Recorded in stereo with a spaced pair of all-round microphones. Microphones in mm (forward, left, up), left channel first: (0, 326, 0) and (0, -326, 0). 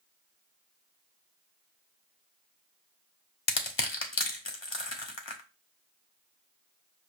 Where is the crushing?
45° left (ahead or behind), 1.0 m.